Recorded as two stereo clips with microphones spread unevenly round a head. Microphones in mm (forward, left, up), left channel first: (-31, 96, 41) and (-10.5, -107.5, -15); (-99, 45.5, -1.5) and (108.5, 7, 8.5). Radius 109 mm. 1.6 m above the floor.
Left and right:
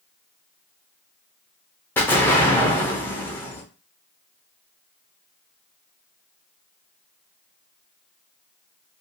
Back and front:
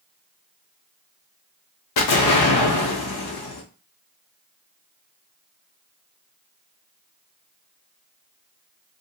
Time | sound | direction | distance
2.0 | an explosion | 175° left | 0.7 m